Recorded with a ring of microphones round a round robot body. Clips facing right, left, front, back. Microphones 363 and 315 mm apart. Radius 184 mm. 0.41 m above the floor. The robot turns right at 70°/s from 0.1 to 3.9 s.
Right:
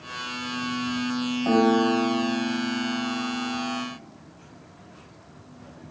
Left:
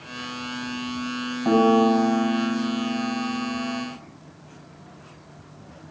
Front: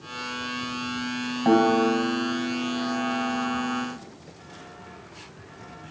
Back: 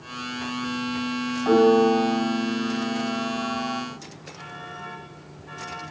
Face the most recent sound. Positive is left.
turn(degrees=-165)